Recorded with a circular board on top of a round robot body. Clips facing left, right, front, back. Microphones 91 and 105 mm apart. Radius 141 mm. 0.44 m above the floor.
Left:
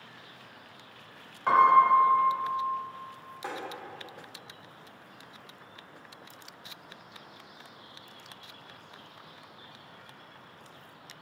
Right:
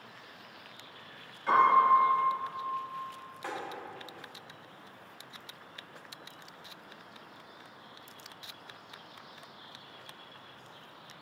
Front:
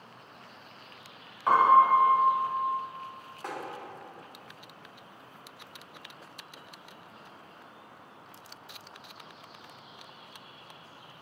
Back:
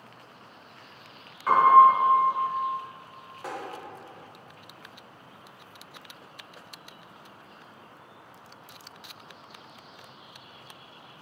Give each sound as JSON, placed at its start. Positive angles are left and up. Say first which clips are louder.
{"t": 1.5, "sound": "a piano", "louder": "left 3 dB, back 4 dB", "azimuth_deg": 65, "distance_m": 1.0}
{"t": 3.4, "sound": "tapping", "louder": "left 1 dB, back 2 dB", "azimuth_deg": 110, "distance_m": 1.2}